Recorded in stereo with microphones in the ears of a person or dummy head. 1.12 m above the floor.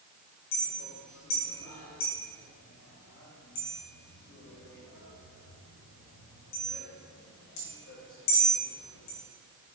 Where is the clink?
65° left (ahead or behind), 1.0 m.